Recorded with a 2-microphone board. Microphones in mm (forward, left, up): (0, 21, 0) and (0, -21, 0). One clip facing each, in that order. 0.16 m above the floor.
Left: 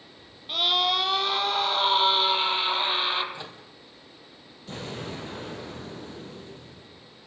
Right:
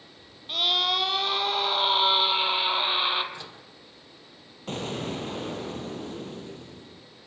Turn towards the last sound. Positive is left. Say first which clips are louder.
# right 4 dB
turn(degrees=-55)  # may be behind; listen again after turning